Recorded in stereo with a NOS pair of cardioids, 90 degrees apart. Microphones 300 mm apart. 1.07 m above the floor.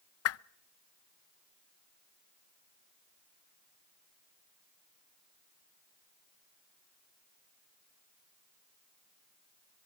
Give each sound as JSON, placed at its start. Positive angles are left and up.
{"t": 0.2, "sound": "a whoosh", "azimuth_deg": 55, "distance_m": 0.5}